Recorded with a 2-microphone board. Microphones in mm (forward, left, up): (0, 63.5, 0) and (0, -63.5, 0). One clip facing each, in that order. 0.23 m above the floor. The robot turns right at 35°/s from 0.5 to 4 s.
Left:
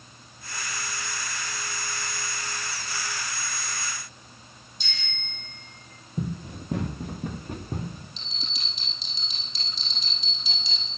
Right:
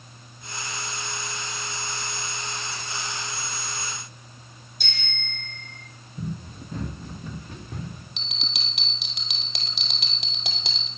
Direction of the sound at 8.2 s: 75° right (ahead or behind).